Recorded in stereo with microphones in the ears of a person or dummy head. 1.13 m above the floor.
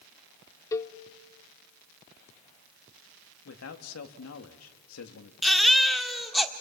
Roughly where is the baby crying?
Centre.